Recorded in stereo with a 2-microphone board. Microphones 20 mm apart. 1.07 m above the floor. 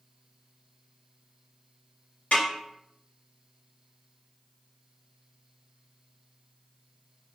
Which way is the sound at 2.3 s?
90° left.